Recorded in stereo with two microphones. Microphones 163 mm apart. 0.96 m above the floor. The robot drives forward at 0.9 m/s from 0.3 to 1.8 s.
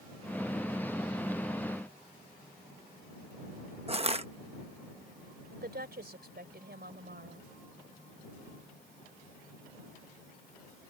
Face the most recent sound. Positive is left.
turn(degrees=-80)